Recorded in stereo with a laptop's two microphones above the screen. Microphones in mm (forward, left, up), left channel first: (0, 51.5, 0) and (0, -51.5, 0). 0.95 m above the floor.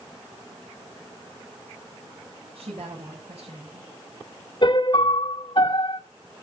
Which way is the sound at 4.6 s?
50° left (ahead or behind).